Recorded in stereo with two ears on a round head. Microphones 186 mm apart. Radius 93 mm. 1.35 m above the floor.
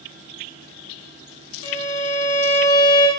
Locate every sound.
1.6 s a violin: 80° left, 0.6 m